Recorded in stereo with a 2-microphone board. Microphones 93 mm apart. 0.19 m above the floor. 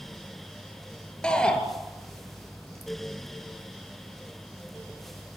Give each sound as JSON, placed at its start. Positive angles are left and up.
{"t": 1.2, "sound": "a shout", "side_deg": 10, "distance_m": 4.0}